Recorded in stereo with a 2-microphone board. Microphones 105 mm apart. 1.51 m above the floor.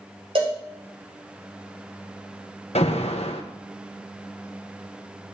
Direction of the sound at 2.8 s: 80° left.